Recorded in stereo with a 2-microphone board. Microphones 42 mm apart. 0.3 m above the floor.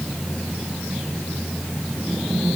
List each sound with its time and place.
Only background noise.